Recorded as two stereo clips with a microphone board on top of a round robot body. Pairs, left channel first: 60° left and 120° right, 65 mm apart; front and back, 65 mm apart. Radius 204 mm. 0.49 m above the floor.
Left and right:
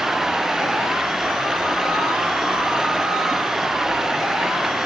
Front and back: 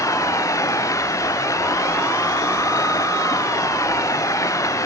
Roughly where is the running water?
Ahead right.